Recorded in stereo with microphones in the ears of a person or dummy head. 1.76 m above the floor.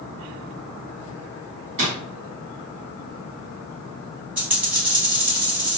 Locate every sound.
1.8 s a drawer: 35° right (ahead or behind), 1.6 m
4.4 s a dropped coin: 5° right (ahead or behind), 1.7 m